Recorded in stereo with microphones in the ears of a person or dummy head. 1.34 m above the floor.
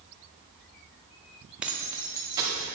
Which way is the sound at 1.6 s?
5° right (ahead or behind).